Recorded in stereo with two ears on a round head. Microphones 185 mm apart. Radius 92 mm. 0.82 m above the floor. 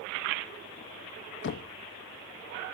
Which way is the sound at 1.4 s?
55° left (ahead or behind).